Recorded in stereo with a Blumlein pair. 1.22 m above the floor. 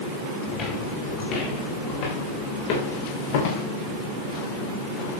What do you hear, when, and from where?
0.5 s footsteps: 30° left, 5 m; by 3.6 s 55° left, 5.5 m